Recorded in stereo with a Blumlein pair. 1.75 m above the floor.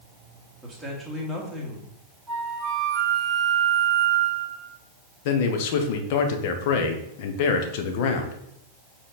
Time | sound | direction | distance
0.6 | a man speaking | straight ahead | 2.5 m
2.3 | a flute | 15° right | 2 m
5.2 | a man speaking | 50° left | 1.2 m